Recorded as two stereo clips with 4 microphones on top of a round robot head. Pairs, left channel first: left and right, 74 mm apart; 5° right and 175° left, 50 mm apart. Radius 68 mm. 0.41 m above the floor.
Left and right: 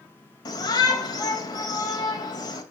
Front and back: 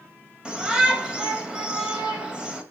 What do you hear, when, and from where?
0.5 s a shout: 105° left, 2.5 m